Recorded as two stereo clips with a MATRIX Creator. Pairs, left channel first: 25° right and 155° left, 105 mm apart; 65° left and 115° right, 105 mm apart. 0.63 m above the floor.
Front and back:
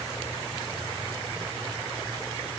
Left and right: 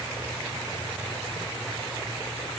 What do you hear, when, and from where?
Only background noise.